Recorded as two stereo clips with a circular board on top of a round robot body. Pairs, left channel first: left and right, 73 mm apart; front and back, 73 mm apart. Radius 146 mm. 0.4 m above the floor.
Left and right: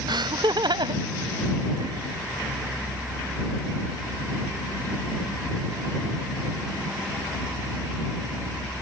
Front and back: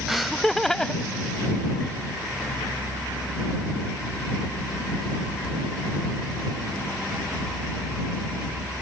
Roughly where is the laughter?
Right.